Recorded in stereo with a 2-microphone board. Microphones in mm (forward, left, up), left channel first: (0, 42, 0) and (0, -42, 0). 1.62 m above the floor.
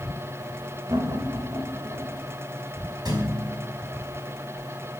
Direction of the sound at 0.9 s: 50° right (ahead or behind).